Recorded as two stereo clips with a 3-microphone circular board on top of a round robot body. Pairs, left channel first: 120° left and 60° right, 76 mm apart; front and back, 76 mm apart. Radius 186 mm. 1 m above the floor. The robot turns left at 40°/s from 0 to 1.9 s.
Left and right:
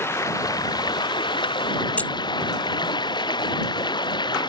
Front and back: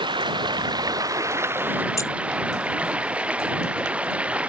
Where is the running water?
Straight behind; by 4.5 s 105° left.